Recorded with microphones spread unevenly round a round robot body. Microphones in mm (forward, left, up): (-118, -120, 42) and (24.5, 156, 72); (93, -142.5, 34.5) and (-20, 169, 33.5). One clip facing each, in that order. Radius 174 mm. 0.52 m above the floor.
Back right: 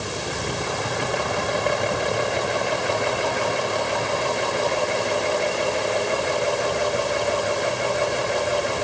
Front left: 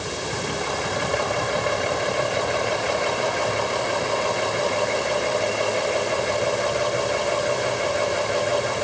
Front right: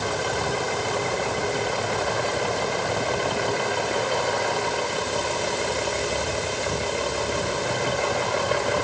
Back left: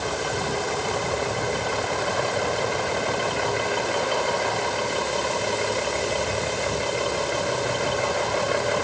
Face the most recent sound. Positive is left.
No sound to turn to.